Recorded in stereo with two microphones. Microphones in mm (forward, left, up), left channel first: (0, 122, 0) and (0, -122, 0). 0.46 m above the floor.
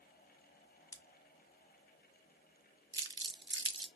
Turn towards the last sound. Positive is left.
turn(degrees=-50)  # may be behind; listen again after turning